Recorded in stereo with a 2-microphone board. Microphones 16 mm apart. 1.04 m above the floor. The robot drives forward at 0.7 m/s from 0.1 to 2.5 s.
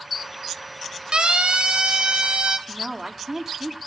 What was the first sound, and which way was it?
A siren, 75° right (ahead or behind).